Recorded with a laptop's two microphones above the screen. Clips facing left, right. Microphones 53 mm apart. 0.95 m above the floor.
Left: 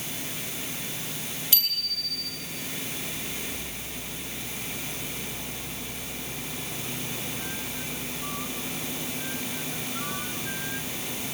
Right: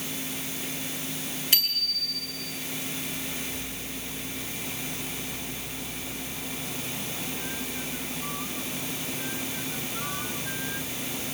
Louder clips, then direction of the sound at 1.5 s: Right 3 dB; 45° right (ahead or behind).